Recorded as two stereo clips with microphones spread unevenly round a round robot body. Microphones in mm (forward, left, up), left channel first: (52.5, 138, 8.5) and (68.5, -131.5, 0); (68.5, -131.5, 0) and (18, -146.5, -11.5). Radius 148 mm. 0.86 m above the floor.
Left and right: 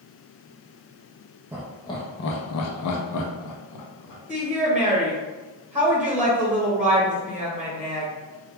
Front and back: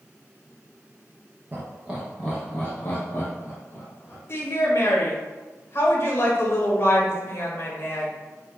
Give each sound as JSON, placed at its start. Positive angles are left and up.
{"t": 1.5, "sound": "laughter", "azimuth_deg": -160, "distance_m": 0.5}
{"t": 4.3, "sound": "a woman speaking", "azimuth_deg": -5, "distance_m": 1.2}